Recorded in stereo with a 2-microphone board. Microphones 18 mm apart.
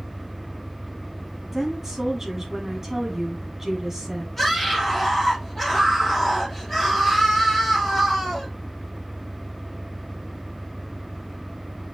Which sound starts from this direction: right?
A woman speaking, at 1.5 s.